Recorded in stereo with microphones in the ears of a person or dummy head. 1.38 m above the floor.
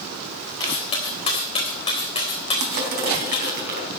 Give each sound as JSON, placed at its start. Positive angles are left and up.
{"t": 0.6, "sound": "cutlery clinking", "side_deg": 20, "distance_m": 3.5}
{"t": 2.6, "sound": "crushing", "side_deg": -55, "distance_m": 3.5}